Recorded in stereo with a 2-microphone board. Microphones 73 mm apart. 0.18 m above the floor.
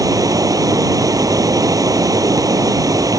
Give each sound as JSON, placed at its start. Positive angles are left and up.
{"t": 0.0, "sound": "running water", "side_deg": -55}